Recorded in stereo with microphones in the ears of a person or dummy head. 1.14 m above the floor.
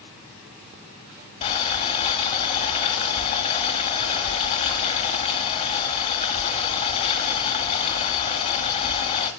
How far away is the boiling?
About 1.9 m.